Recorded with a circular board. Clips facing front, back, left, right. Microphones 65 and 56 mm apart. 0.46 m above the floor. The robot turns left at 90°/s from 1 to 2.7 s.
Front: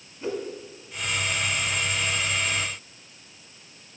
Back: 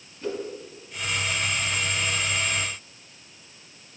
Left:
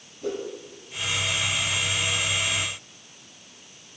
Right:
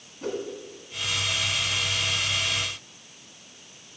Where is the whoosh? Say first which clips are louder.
Front 1 dB, left 1 dB; 70° right, 1.5 m.